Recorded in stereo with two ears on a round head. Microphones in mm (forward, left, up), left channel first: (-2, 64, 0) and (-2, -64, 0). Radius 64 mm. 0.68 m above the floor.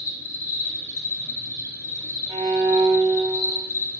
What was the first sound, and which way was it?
An insect, 20° left (ahead or behind).